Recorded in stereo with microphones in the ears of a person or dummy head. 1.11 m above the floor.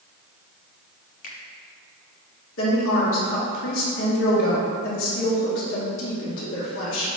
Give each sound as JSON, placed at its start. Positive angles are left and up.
{"t": 1.2, "sound": "a finger snap", "side_deg": 50, "distance_m": 1.1}
{"t": 2.6, "sound": "a woman speaking", "side_deg": 65, "distance_m": 2.0}